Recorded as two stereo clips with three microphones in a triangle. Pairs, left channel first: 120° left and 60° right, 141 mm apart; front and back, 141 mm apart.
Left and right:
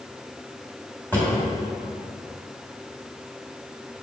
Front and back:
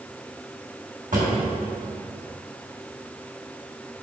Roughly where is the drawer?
Behind.